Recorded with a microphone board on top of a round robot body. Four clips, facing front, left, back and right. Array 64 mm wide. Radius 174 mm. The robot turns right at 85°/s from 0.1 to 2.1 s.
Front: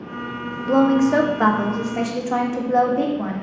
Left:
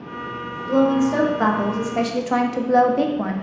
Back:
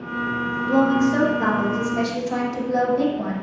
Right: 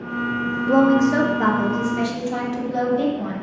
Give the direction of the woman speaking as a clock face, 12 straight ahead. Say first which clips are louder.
Right 2 dB, front 3 dB; 2 o'clock.